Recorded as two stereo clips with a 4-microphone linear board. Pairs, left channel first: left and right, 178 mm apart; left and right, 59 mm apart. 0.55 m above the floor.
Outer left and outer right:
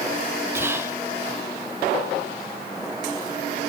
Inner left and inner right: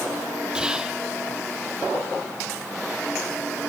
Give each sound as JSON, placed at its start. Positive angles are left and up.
{"t": 0.6, "sound": "whispering", "side_deg": -15, "distance_m": 0.6}